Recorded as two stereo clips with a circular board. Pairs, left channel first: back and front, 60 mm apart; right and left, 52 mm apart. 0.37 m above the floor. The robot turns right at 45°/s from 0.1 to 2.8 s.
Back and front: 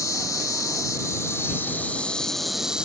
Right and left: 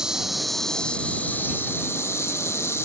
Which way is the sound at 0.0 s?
165° left.